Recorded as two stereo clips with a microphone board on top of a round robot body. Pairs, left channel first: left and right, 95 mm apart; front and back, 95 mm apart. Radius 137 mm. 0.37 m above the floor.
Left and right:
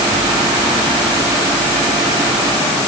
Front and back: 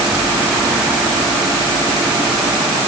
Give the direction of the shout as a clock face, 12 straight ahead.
I don't hear a shout.